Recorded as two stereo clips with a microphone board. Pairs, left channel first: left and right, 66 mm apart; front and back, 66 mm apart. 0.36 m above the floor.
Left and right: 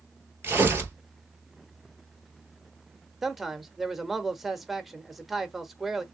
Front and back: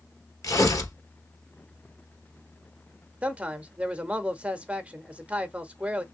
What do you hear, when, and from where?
0.4 s tearing paper: 35° right, 1.6 m
3.2 s a man speaking: 165° right, 0.8 m